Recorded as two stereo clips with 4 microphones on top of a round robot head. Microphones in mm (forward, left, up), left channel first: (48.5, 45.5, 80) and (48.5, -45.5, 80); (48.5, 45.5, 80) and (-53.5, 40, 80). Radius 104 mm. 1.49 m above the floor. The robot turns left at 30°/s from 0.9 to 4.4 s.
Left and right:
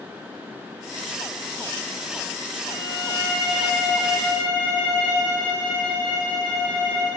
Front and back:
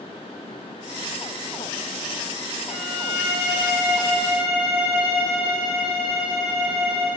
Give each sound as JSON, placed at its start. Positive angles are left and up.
{"t": 2.7, "sound": "a violin", "azimuth_deg": -105, "distance_m": 1.9}